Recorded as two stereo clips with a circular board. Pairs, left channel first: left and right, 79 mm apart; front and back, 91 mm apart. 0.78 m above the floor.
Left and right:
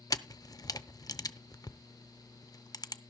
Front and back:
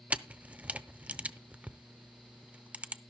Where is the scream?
I don't hear a scream.